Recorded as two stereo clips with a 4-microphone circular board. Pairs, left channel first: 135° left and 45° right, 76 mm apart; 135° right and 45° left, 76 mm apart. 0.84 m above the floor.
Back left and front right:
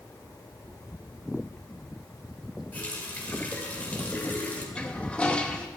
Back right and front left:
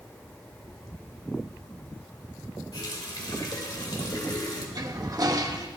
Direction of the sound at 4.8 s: 65° left.